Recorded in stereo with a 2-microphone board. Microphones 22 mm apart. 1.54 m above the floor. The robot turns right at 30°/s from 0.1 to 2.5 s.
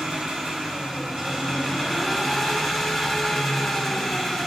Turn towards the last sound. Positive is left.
turn(degrees=-10)